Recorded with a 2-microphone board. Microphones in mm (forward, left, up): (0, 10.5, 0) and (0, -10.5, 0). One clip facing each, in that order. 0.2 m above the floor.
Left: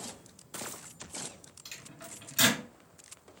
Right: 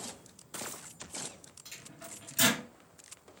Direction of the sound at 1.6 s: 60° left (ahead or behind).